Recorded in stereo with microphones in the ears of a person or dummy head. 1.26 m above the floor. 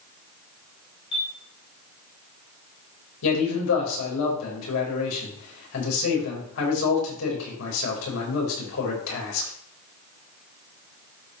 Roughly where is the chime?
Left.